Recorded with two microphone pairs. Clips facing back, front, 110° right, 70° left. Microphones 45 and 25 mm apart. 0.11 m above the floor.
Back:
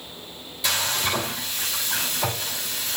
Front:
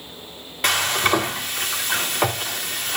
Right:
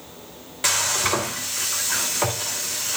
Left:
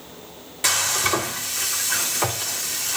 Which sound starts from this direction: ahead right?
Frying, at 0.6 s.